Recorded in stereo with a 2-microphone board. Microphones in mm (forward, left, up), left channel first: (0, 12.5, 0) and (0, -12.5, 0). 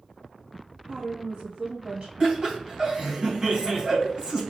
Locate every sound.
0.9 s a woman speaking: 60° right (ahead or behind), 1.9 m
2.2 s laughter: 40° right (ahead or behind), 1.7 m